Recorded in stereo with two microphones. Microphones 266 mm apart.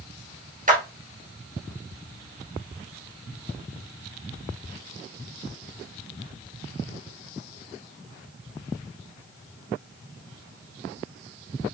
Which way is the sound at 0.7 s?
30° right (ahead or behind).